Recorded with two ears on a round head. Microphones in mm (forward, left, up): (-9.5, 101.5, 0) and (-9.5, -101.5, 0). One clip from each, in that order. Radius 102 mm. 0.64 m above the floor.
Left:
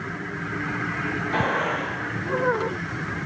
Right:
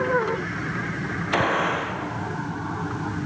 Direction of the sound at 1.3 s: 60° right (ahead or behind).